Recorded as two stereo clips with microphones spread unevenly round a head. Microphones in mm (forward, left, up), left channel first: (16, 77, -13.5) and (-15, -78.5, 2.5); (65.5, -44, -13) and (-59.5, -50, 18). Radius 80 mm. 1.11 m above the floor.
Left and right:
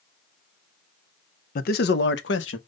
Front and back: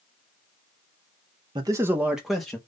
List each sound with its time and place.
1.6 s a man speaking: 115° left, 0.7 m; by 2.6 s 85° left, 1.2 m